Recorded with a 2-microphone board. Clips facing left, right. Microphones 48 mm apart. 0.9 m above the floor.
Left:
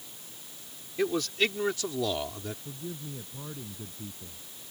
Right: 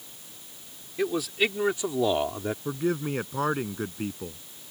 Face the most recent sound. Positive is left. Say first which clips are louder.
# right 13 dB
turn(degrees=-85)